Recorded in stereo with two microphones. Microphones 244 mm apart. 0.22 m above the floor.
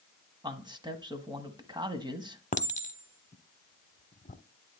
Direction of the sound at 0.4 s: 15° right (ahead or behind).